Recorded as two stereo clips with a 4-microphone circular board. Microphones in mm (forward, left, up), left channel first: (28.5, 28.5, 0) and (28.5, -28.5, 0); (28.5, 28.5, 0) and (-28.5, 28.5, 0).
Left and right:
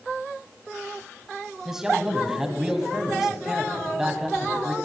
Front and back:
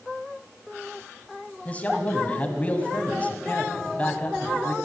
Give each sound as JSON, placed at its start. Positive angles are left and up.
{"t": 1.6, "sound": "a man speaking", "azimuth_deg": -20, "distance_m": 1.6}